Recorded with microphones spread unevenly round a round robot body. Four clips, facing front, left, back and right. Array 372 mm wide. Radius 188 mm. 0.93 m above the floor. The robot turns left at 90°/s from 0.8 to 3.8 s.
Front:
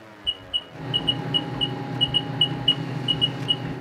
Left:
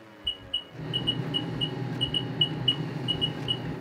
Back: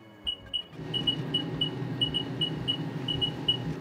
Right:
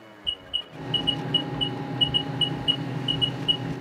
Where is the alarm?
165° left, 1.2 m; by 3.7 s 100° right, 1.2 m.